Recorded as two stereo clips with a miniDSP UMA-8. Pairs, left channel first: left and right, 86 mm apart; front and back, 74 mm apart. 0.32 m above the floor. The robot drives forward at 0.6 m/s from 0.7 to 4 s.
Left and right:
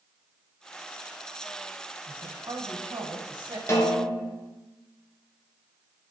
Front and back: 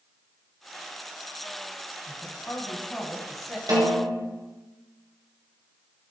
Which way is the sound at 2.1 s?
65° right.